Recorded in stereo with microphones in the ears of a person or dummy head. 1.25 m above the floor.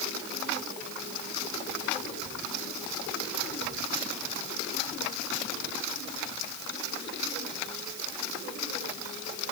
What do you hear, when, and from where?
Only background noise.